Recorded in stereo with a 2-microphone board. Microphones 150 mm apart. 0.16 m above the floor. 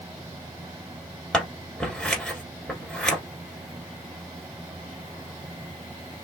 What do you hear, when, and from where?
1.3 s scissors: 5° left (ahead or behind), 1.4 m